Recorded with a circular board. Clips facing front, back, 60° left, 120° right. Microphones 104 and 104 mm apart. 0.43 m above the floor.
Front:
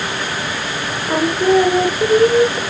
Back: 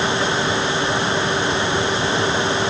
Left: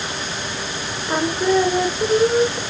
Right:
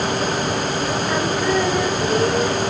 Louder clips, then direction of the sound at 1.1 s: Front 6 dB, left 4 dB; 10° right.